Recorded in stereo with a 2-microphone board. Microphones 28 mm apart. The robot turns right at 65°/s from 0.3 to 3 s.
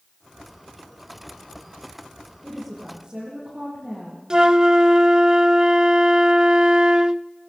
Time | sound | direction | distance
2.4 | a woman speaking | 175° left | 8 m
4.3 | a flute | 30° right (ahead or behind) | 0.5 m